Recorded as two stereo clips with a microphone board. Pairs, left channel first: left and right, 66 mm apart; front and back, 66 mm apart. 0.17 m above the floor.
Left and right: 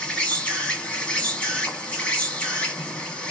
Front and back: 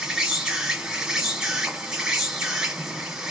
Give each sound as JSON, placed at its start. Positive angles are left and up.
{"t": 0.0, "sound": "an insect", "azimuth_deg": 125, "distance_m": 1.1}